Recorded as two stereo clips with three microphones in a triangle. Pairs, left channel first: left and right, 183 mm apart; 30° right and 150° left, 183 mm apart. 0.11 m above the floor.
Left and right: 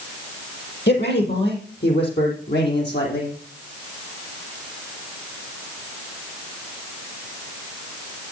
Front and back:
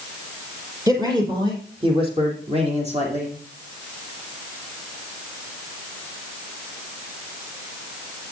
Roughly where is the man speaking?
Left.